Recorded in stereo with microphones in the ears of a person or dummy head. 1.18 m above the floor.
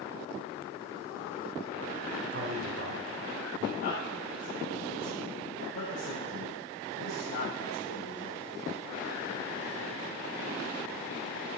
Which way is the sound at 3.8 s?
55° left (ahead or behind).